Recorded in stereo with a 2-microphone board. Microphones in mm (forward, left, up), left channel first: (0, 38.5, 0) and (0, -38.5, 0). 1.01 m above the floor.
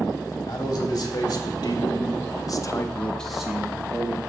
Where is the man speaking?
50° left (ahead or behind), 3 m; by 4.2 s 30° right (ahead or behind), 1.4 m.